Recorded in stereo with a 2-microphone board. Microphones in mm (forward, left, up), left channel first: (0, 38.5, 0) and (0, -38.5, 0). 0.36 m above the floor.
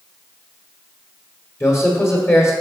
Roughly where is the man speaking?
Left.